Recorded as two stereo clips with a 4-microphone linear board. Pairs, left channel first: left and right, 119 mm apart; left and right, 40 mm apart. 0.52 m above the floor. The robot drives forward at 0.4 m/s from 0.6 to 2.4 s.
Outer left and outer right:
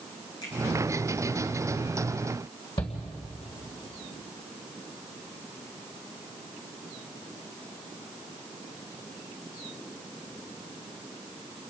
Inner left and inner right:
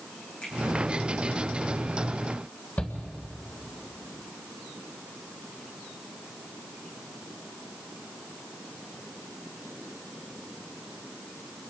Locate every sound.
0.4 s a finger snap: 35° left (ahead or behind), 8 m
2.8 s a shout: 50° left (ahead or behind), 2.5 m